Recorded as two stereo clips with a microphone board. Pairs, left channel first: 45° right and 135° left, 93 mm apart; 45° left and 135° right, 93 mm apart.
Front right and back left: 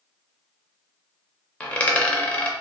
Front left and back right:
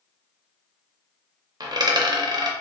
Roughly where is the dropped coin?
Behind right.